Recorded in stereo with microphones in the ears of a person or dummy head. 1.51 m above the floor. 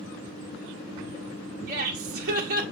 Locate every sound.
1.7 s laughter: 45° right (ahead or behind), 0.5 m